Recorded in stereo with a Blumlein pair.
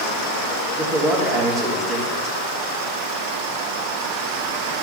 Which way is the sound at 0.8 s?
15° right.